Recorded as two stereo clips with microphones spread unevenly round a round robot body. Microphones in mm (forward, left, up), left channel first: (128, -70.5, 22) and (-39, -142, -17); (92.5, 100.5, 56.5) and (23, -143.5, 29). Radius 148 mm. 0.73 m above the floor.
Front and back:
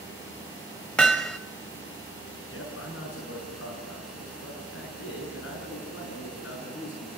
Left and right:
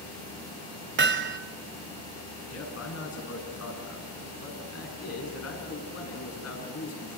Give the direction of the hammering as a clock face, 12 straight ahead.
2 o'clock.